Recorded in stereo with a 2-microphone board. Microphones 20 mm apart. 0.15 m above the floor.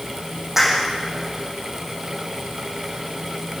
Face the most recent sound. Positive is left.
turn(degrees=-20)  # may be behind; listen again after turning